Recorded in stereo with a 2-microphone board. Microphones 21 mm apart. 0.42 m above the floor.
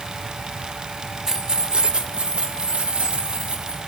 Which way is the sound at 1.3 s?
20° right (ahead or behind).